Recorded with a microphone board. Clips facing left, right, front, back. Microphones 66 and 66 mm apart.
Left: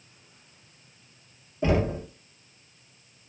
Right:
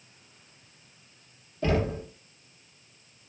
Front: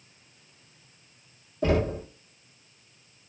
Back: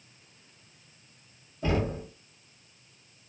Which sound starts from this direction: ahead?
Knocking, at 1.6 s.